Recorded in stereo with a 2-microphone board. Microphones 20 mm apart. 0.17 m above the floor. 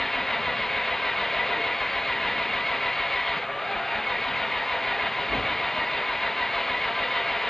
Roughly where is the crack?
No crack in this recording.